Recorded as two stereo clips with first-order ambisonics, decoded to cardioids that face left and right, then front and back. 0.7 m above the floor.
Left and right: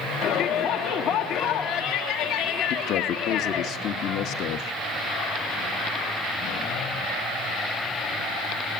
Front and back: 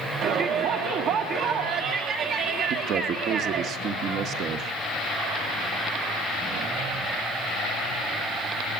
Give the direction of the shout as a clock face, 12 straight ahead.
7 o'clock.